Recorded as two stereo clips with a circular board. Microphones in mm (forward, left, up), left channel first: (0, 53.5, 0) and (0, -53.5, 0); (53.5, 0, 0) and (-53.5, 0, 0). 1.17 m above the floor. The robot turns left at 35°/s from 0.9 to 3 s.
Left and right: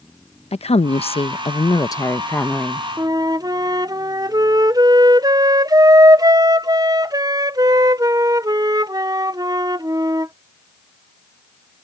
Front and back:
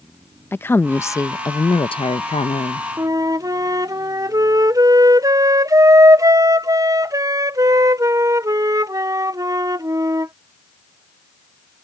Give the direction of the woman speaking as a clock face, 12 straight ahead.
10 o'clock.